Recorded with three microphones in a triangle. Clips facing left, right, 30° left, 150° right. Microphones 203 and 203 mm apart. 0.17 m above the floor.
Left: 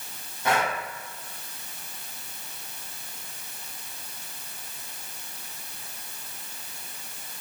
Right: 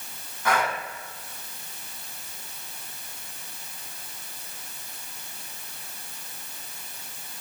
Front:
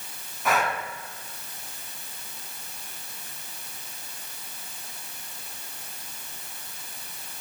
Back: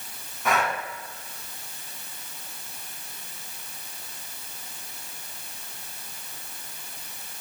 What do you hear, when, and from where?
0.5 s breathing: 115° left, 1.7 m